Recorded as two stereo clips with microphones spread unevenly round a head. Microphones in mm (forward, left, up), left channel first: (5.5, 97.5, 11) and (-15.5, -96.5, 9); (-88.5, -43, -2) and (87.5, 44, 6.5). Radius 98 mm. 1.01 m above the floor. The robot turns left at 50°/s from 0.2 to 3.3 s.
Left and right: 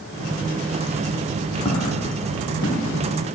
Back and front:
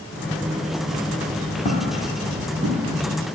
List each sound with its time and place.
1.6 s footsteps: 145° left, 1.9 m; by 2.9 s 80° left, 3 m